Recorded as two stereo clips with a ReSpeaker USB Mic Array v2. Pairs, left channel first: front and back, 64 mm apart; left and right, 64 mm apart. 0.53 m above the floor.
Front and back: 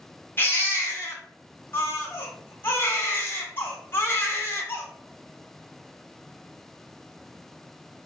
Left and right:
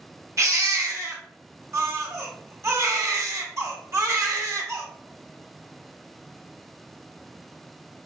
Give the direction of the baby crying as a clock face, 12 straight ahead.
2 o'clock.